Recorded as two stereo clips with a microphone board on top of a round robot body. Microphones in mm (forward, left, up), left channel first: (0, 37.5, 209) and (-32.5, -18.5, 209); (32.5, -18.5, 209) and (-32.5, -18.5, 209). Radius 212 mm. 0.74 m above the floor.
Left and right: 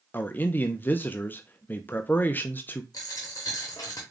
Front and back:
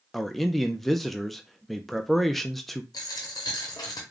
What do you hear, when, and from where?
0.1 s a man speaking: 85° left, 0.6 m
2.9 s a dropped coin: 30° left, 0.7 m